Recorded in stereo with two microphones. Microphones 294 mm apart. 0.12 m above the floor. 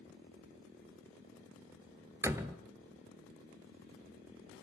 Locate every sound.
2.2 s a door slam: 10° right (ahead or behind), 1.2 m